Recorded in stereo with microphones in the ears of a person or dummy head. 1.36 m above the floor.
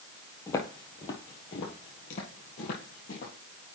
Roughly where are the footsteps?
Centre.